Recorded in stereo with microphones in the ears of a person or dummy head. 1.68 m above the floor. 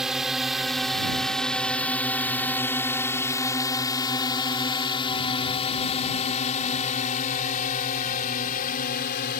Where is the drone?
5° right (ahead or behind); by 9.4 s 55° left (ahead or behind).